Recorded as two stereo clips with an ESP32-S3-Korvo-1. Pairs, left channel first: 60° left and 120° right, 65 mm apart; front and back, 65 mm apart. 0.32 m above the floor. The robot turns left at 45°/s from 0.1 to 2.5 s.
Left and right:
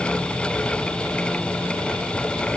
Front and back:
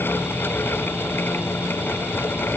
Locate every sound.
Only background noise.